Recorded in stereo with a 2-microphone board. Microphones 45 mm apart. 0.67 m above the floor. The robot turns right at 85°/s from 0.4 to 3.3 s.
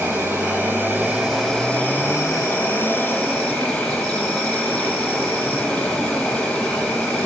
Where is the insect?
90° right, 4.5 m; by 7.3 s 160° left, 4.5 m.